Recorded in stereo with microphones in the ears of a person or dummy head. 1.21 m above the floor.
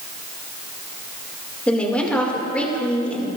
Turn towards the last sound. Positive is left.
turn(degrees=5)  # may be behind; listen again after turning